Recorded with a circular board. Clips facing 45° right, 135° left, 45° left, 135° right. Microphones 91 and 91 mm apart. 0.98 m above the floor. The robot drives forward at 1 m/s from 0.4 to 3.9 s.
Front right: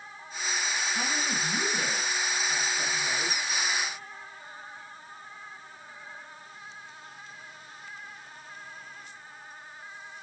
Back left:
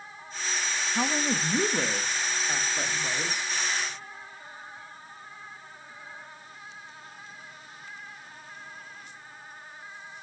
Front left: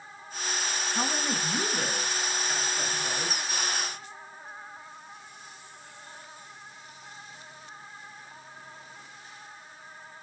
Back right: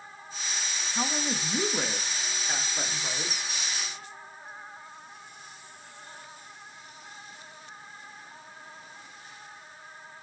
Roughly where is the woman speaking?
Behind left.